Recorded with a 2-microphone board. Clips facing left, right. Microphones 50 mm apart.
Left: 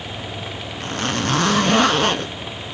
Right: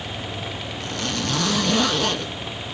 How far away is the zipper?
About 0.5 m.